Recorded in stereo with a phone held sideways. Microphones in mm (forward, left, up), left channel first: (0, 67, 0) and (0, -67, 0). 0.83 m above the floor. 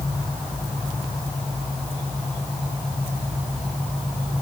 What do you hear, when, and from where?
Only background noise.